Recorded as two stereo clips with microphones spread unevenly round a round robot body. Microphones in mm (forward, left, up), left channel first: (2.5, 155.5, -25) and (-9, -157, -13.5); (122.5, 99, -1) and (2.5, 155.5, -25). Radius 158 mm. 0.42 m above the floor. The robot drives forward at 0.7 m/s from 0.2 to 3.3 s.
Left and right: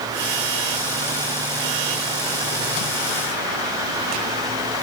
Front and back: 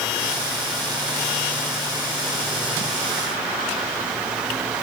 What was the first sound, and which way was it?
Only background noise.